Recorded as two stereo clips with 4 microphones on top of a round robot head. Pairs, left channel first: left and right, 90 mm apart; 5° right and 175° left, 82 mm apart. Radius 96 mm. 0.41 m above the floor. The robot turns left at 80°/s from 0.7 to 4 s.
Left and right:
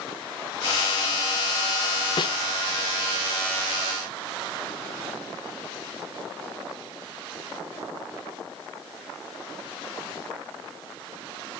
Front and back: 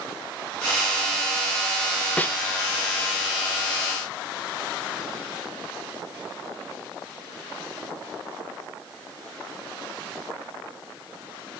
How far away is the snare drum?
About 0.9 m.